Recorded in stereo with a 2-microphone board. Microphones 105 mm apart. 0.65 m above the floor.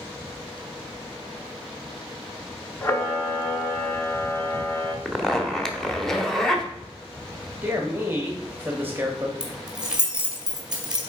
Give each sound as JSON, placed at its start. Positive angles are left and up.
{"t": 2.8, "sound": "a camera shutter", "side_deg": 20, "distance_m": 0.8}
{"t": 5.0, "sound": "a zipper", "side_deg": 5, "distance_m": 0.9}
{"t": 7.6, "sound": "a man speaking", "side_deg": -20, "distance_m": 1.0}
{"t": 9.4, "sound": "keys jangling", "side_deg": -10, "distance_m": 2.5}